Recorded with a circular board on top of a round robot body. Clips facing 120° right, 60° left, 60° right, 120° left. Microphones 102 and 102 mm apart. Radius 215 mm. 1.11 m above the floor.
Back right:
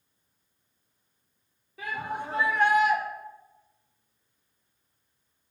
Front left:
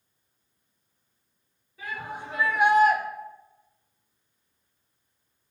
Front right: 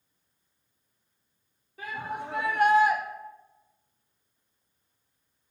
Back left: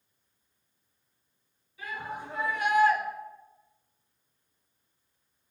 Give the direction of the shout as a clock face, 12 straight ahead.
3 o'clock.